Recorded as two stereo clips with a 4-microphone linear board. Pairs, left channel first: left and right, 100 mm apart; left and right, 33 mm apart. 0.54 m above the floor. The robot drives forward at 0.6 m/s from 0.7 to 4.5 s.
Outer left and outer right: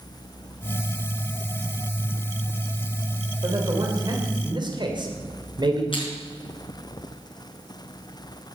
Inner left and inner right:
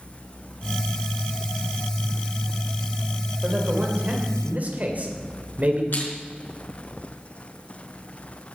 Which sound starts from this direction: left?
Crushing, at 5.9 s.